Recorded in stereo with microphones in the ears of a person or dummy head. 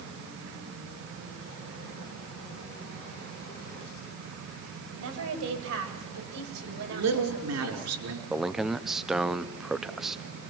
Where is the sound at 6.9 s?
85° right, 5.5 m.